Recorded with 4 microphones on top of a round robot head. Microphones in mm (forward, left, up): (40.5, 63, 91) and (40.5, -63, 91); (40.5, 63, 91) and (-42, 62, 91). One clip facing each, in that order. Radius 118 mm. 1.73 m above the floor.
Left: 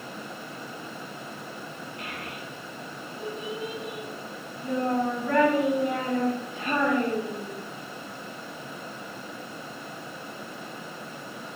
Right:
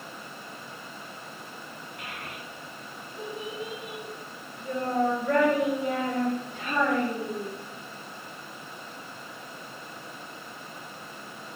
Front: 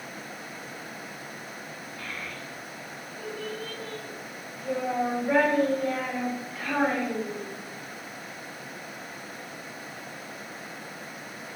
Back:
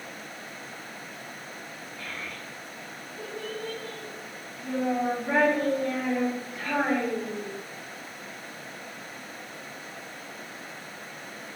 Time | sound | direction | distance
2.0 | a child speaking | 95° right | 1.1 m